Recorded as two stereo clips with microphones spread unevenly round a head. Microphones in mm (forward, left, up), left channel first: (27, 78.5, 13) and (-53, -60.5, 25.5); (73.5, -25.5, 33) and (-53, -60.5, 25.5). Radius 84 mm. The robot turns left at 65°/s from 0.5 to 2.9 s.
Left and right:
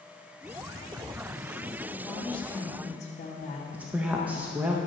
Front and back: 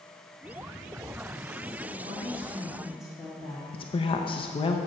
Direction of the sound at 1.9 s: 175° left.